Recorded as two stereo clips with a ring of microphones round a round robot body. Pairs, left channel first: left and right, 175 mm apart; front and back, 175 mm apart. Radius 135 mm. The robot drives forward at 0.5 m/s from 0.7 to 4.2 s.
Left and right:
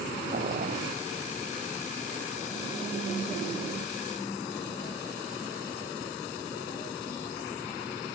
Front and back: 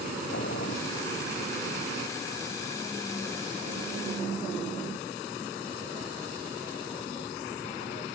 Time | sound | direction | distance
0.3 | boiling | 50° right | ?